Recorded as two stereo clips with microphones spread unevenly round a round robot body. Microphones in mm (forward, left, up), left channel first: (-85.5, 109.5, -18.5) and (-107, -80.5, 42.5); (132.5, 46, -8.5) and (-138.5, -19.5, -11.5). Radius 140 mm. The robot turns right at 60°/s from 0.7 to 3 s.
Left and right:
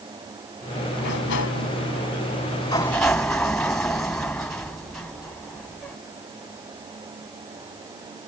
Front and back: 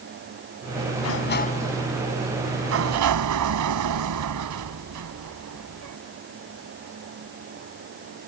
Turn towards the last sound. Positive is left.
turn(degrees=165)